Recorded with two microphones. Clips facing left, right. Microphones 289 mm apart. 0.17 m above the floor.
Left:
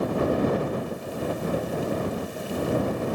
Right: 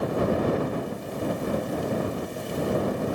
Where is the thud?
I don't hear a thud.